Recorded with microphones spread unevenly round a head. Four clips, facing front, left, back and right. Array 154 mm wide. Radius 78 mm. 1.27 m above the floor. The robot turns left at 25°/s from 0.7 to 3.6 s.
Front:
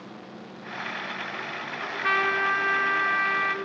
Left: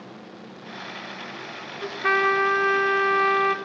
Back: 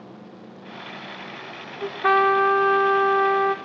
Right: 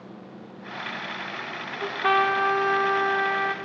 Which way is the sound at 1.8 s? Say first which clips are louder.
Right 1 dB, back 8 dB; 160° right.